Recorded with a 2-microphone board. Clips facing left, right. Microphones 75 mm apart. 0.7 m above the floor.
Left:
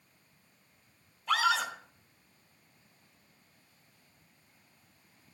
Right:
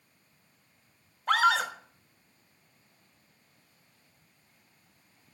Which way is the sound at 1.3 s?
55° right (ahead or behind).